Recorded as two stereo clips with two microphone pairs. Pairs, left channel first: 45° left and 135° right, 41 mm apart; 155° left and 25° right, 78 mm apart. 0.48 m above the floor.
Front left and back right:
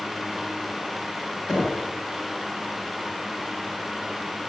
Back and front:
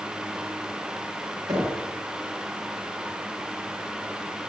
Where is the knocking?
55° right, 3 m.